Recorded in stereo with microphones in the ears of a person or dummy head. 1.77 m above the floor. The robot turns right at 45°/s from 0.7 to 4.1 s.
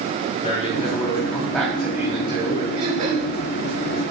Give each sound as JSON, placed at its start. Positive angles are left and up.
{"t": 0.4, "sound": "a man speaking", "azimuth_deg": 135, "distance_m": 3.0}
{"t": 2.8, "sound": "throat clearing", "side_deg": -30, "distance_m": 2.0}